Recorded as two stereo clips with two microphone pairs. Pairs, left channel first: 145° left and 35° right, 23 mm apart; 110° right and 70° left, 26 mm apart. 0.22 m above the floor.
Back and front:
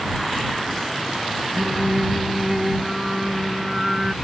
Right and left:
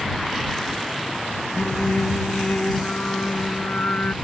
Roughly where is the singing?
Right.